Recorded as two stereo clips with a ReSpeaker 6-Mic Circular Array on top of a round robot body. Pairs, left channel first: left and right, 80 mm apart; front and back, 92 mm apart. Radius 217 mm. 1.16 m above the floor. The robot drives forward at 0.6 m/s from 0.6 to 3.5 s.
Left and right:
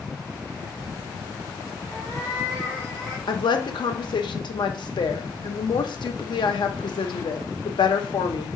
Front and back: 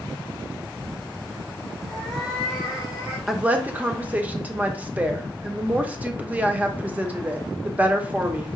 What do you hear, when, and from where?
1.9 s a cat meowing: 50° left, 0.5 m; by 3.2 s 170° left, 0.8 m
3.3 s a woman speaking: 95° left, 0.7 m; by 8.5 s 105° left, 0.7 m